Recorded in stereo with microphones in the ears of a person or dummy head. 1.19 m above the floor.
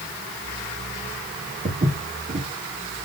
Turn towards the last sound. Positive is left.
turn(degrees=-35)  # may be behind; listen again after turning